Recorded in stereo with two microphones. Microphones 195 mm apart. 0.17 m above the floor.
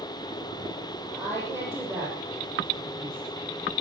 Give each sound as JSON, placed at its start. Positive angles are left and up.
{"t": 1.1, "sound": "a woman speaking", "side_deg": -5, "distance_m": 7.0}